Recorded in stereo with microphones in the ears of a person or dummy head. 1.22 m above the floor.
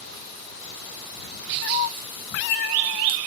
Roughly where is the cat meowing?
Left.